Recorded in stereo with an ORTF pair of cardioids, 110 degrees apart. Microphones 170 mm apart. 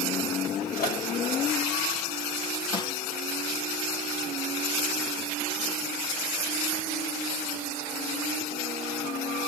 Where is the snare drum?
25° left, 4 m.